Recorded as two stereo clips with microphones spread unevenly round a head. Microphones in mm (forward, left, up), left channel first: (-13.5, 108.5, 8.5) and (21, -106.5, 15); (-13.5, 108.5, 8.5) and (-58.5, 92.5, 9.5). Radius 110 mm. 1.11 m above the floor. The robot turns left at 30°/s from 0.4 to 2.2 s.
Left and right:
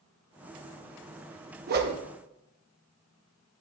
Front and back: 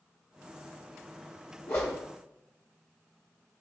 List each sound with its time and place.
1.7 s a whoosh: 35° right, 0.8 m; by 2.0 s 45° right, 0.8 m